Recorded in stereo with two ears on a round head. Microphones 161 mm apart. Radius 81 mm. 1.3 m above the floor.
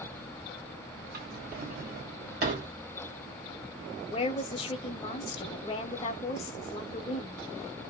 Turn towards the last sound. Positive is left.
turn(degrees=30)  # may be behind; listen again after turning